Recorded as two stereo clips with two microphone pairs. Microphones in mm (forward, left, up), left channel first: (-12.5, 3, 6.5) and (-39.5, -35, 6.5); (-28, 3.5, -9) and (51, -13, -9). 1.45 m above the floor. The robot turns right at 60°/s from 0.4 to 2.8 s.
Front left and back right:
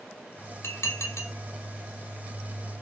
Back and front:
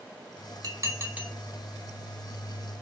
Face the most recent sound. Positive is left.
turn(degrees=155)